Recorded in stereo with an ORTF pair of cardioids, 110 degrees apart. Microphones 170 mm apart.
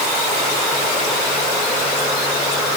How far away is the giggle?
I don't hear a giggle.